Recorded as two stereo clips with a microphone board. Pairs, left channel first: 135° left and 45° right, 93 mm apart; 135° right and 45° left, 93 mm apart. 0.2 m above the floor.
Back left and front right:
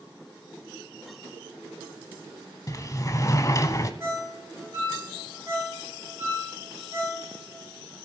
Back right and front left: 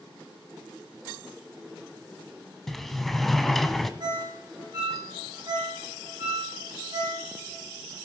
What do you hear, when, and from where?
2.7 s a sliding door: 140° left, 0.8 m
4.0 s a ringtone: 10° left, 6.5 m